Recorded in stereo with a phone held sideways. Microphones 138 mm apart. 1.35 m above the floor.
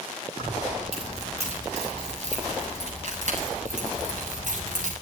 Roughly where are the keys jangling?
Right.